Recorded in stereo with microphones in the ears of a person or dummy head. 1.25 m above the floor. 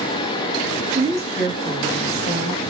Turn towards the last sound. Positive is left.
turn(degrees=55)  # may be behind; listen again after turning